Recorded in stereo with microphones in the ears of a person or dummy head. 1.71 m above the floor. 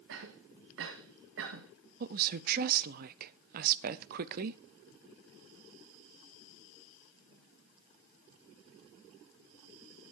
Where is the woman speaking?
50° right (ahead or behind), 0.7 m.